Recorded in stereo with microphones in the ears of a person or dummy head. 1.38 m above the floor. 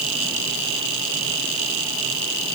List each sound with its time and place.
Only background noise.